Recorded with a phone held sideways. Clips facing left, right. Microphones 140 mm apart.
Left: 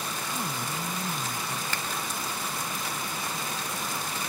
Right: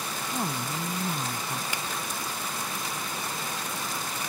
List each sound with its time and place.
0.3 s a woman speaking: 40° right (ahead or behind); by 1.6 s 45° right (ahead or behind)
1.7 s a finger snap: 15° right (ahead or behind)